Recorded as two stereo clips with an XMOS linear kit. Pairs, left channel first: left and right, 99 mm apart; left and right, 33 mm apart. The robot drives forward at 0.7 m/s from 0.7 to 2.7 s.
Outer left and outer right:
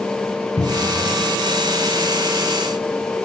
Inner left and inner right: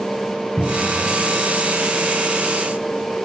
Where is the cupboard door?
65° left (ahead or behind), 5.5 m; by 1.1 s 70° left (ahead or behind), 5.5 m.